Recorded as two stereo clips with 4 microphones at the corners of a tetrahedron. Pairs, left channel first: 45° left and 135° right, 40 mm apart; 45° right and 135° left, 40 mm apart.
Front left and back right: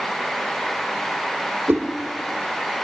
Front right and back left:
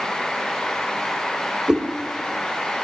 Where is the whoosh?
155° right, 2.0 m.